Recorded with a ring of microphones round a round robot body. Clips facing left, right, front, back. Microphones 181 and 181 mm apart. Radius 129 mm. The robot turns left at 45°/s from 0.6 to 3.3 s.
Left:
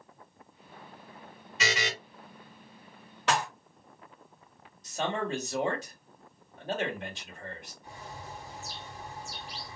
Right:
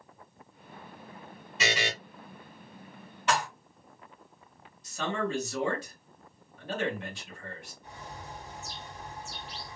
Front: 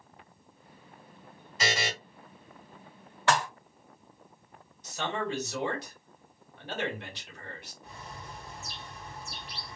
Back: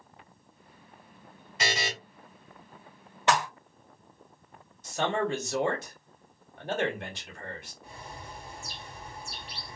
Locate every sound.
1.6 s a buzzer: 145° right, 1.9 m; by 1.9 s 160° right, 1.9 m
3.3 s dishes clattering: 110° left, 1.1 m
4.8 s a man speaking: 145° left, 1.5 m
7.8 s a bird: 155° left, 1.5 m